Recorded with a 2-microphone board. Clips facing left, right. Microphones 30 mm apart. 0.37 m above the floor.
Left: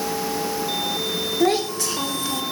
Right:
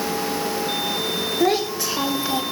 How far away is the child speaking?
About 1.0 m.